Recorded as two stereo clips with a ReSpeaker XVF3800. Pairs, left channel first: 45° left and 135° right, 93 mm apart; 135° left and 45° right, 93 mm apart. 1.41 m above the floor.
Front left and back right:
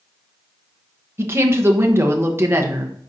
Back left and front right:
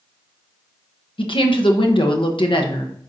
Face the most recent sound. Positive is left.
turn(degrees=160)